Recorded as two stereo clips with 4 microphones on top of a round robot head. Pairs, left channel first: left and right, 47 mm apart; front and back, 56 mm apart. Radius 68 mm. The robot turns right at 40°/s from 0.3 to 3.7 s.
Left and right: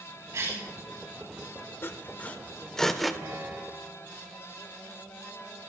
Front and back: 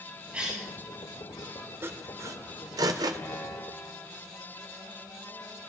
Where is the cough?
110° right, 9.5 m; by 0.7 s 95° right, 9.5 m.